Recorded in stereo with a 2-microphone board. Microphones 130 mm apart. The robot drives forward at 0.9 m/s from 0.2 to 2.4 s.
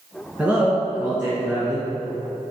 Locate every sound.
0.4 s a man speaking: 10° right (ahead or behind), 2.0 m; by 1.9 s 5° right (ahead or behind), 3 m